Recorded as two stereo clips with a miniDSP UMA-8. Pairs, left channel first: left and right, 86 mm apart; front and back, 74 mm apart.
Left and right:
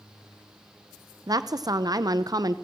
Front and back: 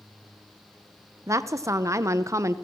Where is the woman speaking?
130° right, 0.7 m.